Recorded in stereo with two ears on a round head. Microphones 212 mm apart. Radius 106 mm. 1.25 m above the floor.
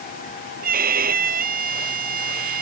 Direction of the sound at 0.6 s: 40° right (ahead or behind).